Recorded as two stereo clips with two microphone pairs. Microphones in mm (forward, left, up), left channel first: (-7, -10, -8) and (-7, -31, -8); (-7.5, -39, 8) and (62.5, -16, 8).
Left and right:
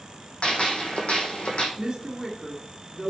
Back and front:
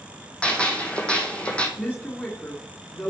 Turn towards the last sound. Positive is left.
turn(degrees=-125)